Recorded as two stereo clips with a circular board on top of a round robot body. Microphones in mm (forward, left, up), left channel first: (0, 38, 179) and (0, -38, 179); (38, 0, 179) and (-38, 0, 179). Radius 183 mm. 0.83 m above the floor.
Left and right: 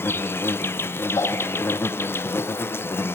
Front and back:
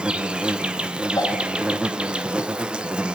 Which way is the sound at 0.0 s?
115° left.